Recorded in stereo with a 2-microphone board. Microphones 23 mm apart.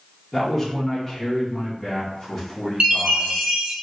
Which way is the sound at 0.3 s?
10° left (ahead or behind).